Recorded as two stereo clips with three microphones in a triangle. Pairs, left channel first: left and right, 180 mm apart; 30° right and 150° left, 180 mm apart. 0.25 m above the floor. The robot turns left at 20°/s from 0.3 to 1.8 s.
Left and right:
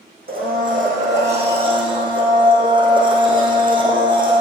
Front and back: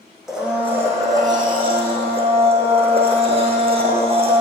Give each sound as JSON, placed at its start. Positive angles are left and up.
{"t": 0.3, "sound": "a blender", "azimuth_deg": -125, "distance_m": 3.0}